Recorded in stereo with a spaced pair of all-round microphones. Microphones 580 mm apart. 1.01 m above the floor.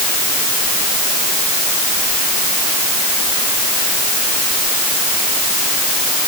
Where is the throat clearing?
I don't hear throat clearing.